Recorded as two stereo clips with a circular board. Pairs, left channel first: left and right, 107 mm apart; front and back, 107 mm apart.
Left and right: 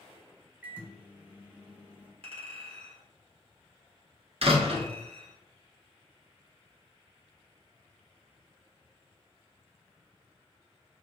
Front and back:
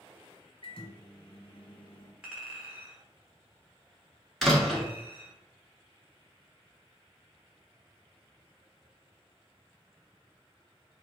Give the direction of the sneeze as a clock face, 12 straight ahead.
No sneeze in this recording.